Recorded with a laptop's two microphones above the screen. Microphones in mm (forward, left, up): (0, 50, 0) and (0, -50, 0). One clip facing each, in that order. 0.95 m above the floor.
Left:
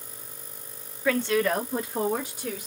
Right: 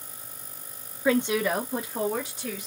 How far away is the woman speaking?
About 0.8 m.